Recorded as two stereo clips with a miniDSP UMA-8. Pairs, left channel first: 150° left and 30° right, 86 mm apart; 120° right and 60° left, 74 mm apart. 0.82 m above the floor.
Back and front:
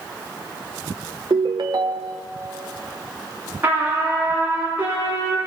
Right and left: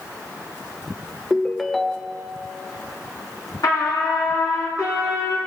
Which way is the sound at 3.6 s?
90° right.